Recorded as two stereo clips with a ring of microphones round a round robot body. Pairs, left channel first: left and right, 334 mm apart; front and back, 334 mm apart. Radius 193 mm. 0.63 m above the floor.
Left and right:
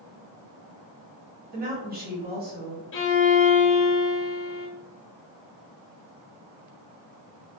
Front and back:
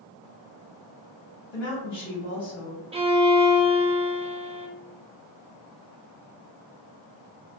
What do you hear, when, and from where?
1.5 s a woman speaking: 30° right, 1.7 m
2.9 s a violin: 115° left, 0.6 m